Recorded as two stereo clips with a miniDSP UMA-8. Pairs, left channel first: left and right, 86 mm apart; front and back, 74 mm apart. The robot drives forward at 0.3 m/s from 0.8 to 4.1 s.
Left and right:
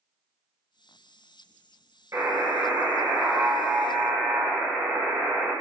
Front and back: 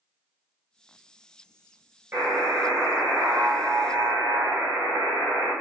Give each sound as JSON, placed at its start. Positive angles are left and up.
{"t": 2.1, "sound": "a buzzer", "azimuth_deg": -130, "distance_m": 1.1}